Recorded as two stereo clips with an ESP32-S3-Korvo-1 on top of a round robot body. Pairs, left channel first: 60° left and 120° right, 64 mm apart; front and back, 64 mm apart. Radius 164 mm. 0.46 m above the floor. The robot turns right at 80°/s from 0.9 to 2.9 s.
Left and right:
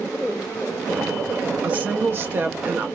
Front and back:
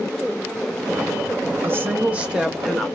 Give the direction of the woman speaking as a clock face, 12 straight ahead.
6 o'clock.